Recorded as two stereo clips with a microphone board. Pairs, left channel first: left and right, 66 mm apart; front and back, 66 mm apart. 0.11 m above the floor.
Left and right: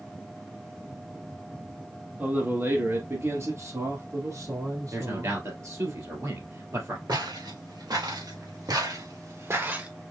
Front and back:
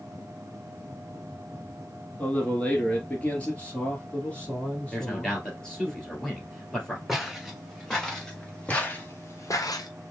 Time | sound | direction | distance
2.2 | a man speaking | 55° right | 1.3 m
4.9 | a man speaking | 80° right | 2.5 m
7.1 | footsteps | 90° right | 3 m